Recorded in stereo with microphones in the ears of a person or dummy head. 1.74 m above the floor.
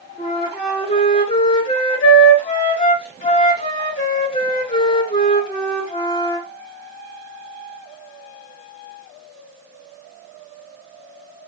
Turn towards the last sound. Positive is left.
turn(degrees=35)  # may be behind; listen again after turning